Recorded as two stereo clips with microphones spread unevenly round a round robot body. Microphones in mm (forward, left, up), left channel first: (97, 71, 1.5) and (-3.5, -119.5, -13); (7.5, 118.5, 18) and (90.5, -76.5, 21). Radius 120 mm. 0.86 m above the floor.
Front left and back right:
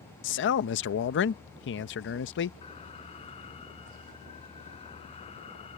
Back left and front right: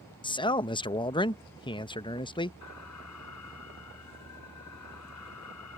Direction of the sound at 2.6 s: 130° left.